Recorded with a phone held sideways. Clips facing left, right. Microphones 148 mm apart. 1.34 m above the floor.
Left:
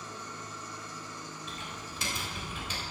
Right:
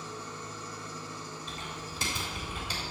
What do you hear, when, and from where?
0.0 s an engine running: 30° right (ahead or behind), 2.0 m
1.5 s typing on a keyboard: 35° right (ahead or behind), 3.5 m